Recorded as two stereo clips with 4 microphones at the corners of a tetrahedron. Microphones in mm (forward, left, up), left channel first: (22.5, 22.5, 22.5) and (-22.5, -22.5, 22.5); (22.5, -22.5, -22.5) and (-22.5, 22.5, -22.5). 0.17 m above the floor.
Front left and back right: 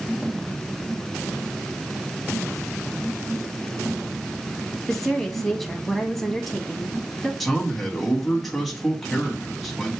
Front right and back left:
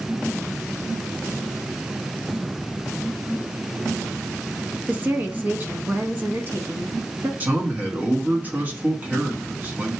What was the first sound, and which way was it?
A woman speaking, 125° left.